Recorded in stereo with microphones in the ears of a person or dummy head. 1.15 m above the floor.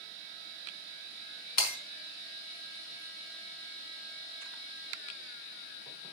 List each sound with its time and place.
1.6 s breaking glass: 45° left (ahead or behind), 4.5 m